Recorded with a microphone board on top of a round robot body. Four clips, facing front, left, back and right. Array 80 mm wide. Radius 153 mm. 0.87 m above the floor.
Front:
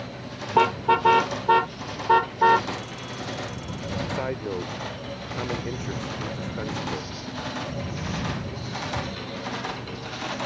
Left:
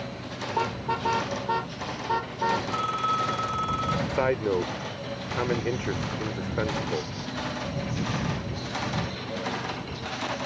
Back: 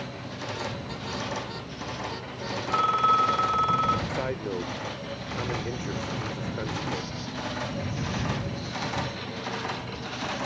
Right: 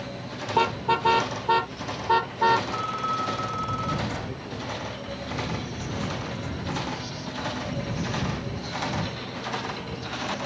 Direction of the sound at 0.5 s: 10° right.